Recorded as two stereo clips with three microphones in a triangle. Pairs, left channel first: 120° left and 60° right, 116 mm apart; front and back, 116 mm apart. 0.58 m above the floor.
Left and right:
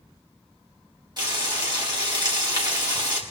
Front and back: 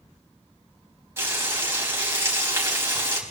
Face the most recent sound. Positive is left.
turn(degrees=-110)